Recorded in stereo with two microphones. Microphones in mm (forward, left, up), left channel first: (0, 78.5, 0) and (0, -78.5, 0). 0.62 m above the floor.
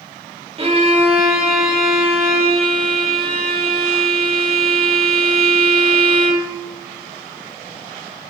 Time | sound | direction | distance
0.6 | a violin | 35° right (ahead or behind) | 1.0 m